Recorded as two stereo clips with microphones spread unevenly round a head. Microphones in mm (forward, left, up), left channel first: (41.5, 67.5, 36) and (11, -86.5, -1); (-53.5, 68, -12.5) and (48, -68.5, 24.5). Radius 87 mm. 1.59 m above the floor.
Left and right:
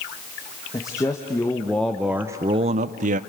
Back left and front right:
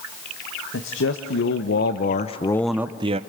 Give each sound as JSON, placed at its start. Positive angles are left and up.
{"t": 0.7, "sound": "a man speaking", "azimuth_deg": 145, "distance_m": 1.4}